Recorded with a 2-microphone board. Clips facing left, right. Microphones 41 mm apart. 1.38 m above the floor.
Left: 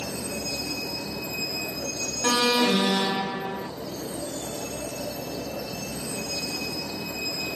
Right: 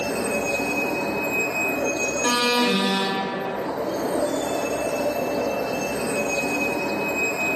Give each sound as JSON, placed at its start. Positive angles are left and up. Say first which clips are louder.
{"t": 0.0, "sound": "a vehicle", "louder": "right 9 dB", "side_deg": -40}
{"t": 2.2, "sound": "an alarm", "louder": "even", "side_deg": -5}